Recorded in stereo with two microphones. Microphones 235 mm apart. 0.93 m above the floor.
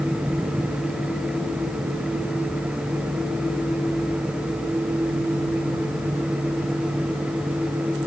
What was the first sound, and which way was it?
Only background noise.